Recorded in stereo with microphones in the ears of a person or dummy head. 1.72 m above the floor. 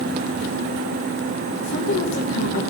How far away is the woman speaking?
About 1.4 m.